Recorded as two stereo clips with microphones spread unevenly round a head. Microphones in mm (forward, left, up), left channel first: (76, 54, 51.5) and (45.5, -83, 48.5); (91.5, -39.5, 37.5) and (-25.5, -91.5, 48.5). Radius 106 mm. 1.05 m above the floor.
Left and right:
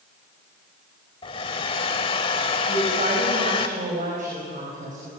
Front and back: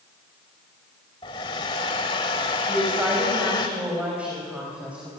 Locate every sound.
1.2 s a hair dryer: 70° left, 0.9 m
2.7 s a woman speaking: 75° right, 6 m